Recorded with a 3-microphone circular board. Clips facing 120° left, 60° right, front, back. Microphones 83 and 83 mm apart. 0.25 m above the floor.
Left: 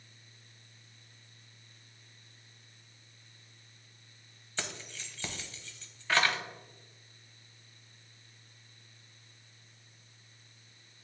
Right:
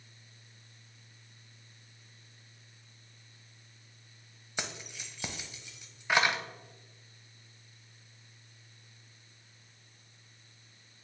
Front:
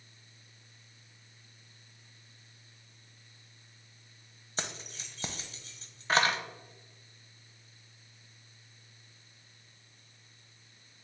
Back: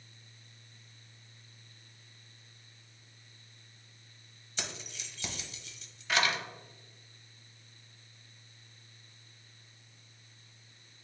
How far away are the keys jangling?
About 0.7 m.